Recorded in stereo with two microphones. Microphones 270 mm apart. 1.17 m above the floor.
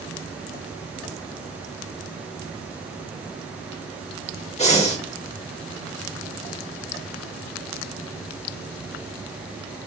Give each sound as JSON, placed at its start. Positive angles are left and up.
{"t": 4.6, "sound": "breathing", "side_deg": 25, "distance_m": 0.9}